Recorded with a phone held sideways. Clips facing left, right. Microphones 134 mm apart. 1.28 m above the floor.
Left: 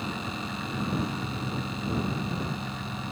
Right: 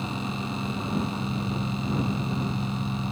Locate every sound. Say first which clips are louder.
0.0 s an engine running: right 3 dB; 30° right (ahead or behind)